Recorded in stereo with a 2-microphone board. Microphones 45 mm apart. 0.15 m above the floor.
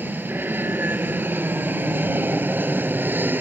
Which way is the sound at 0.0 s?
50° right (ahead or behind).